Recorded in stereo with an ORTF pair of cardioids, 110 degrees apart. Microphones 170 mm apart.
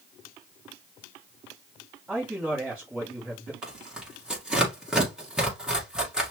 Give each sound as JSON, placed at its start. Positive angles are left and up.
{"t": 2.1, "sound": "a man speaking", "azimuth_deg": -5, "distance_m": 1.7}
{"t": 3.6, "sound": "tearing paper", "azimuth_deg": -5, "distance_m": 2.0}